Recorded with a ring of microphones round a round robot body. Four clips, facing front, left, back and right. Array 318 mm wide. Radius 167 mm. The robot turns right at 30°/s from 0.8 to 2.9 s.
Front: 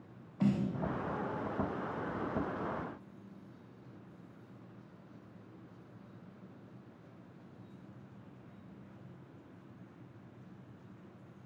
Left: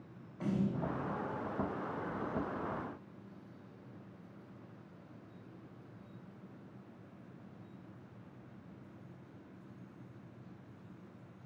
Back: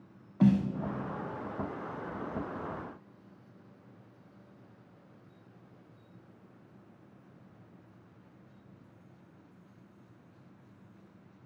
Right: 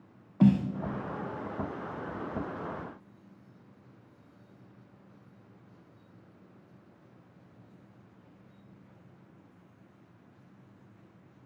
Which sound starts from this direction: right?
A snare drum, at 0.4 s.